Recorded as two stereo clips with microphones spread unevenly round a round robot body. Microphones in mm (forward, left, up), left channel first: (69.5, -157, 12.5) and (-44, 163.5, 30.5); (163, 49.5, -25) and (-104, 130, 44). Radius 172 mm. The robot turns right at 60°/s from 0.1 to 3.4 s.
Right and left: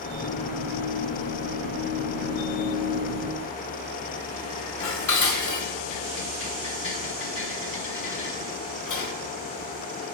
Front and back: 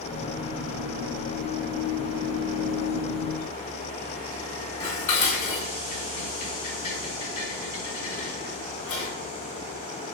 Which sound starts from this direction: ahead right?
Dishes clattering, at 4.8 s.